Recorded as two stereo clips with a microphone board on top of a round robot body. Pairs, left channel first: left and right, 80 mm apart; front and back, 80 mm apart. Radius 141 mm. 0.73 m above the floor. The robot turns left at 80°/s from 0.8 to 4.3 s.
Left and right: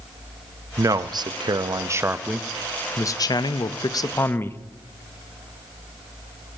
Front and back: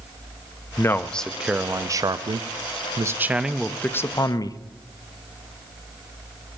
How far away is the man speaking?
About 0.8 m.